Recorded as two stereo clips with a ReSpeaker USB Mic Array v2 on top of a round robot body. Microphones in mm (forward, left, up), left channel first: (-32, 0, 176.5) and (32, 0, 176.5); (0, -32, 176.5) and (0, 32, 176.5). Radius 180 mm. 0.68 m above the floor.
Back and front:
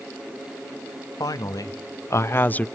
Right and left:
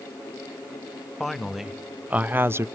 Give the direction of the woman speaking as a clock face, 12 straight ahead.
6 o'clock.